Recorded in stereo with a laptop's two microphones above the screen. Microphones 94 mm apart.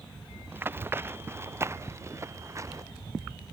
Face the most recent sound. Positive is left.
turn(degrees=-35)  # may be behind; listen again after turning